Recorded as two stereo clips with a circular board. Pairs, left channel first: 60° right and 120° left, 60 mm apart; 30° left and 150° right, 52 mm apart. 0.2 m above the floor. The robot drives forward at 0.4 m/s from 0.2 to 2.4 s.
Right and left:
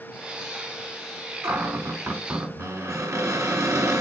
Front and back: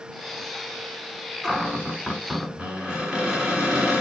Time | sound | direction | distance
1.4 | a cupboard door | 130° left | 1.3 m